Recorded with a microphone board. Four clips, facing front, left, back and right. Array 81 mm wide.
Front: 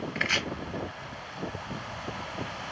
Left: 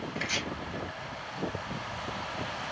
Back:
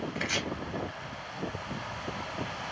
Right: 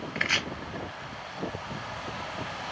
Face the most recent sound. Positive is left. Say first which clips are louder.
# right 6 dB, front 6 dB
turn(degrees=-50)